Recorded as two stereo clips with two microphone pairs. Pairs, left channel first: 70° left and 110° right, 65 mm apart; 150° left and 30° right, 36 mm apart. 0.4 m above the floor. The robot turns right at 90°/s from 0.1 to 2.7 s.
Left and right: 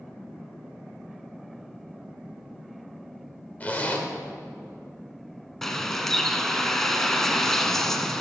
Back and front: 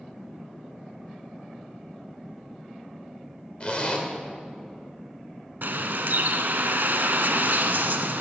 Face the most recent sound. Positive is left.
turn(degrees=-15)